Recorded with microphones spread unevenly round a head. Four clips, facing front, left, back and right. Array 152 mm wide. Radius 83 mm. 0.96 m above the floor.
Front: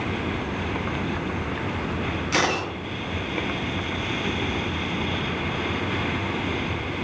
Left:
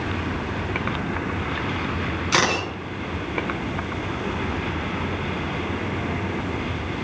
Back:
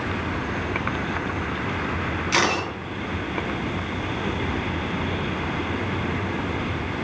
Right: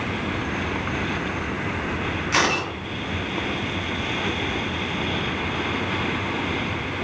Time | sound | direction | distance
2.3 | a camera shutter | 65° left | 4.5 m